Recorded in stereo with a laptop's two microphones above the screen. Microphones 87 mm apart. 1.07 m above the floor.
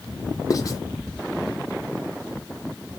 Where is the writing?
40° left (ahead or behind), 0.6 m.